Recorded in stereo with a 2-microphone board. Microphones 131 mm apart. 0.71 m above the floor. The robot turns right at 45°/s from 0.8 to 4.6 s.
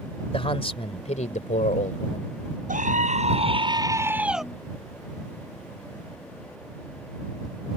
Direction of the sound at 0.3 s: 45° left.